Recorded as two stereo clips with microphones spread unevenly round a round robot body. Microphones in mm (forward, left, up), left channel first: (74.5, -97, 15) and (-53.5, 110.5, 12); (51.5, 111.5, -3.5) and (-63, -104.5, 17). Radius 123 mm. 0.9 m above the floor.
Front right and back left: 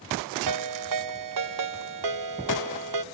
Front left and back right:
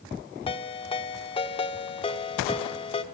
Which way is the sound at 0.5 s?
130° left.